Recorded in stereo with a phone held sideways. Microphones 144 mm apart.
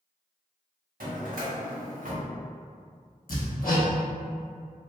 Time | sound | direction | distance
1.0 | a drawer | 75° right (ahead or behind) | 0.7 m
3.3 | hammering | 80° left | 0.7 m